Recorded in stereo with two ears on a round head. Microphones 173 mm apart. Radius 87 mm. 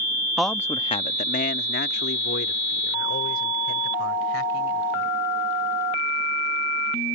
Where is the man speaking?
Centre (ahead or behind); by 5.2 s 70° left (ahead or behind).